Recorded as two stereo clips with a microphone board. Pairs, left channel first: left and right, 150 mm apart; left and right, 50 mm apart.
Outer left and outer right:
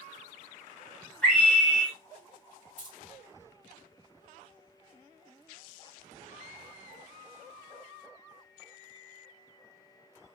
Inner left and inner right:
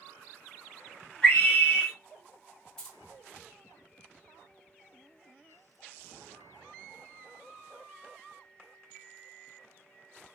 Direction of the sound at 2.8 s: 10° left (ahead or behind).